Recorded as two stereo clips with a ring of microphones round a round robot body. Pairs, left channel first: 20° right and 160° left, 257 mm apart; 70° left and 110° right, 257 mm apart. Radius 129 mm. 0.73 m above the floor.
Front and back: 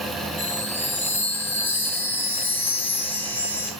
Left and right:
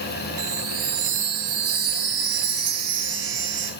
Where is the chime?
105° right, 4 m.